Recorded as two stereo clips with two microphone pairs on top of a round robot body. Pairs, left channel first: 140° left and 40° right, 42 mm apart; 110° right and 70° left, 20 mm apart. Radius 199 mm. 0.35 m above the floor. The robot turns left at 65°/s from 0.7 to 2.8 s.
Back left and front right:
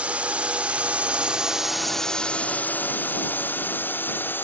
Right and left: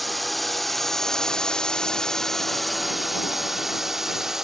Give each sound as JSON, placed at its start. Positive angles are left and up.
{"t": 0.0, "sound": "a drone", "azimuth_deg": -15}